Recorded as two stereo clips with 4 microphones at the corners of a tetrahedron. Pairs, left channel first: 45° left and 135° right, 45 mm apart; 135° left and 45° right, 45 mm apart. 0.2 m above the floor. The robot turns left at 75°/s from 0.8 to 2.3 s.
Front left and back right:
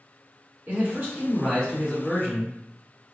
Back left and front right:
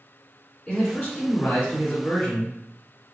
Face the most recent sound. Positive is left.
turn(degrees=85)